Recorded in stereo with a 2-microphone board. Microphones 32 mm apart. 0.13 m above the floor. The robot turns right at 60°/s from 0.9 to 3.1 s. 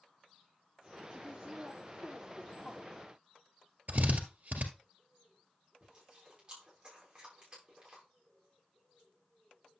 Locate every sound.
1.1 s a woman speaking: 60° right (ahead or behind), 5.5 m; by 2.9 s 45° left (ahead or behind), 5.5 m
3.9 s a drill: 55° right (ahead or behind), 1.9 m
5.8 s chewing: 25° right (ahead or behind), 7 m